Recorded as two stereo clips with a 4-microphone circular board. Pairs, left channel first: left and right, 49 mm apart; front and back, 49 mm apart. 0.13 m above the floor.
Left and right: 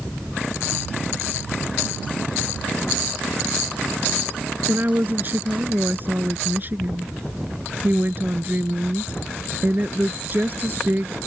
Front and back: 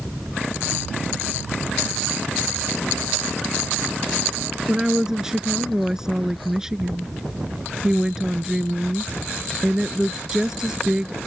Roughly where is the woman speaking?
Right.